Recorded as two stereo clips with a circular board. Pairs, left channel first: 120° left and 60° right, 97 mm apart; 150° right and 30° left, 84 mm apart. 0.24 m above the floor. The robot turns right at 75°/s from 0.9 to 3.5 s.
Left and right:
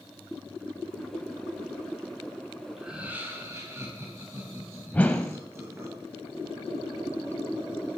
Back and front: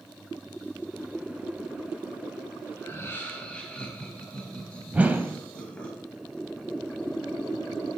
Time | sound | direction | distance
2.8 | laughter | 145° right | 1.5 m
4.9 | a whoosh | 65° left | 0.6 m